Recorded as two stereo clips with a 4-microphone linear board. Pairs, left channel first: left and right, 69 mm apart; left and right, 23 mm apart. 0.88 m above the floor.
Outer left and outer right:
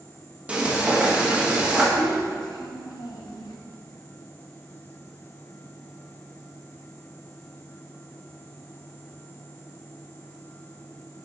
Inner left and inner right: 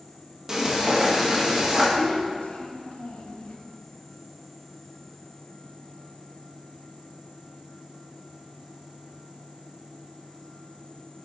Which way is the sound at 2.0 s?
75° left (ahead or behind).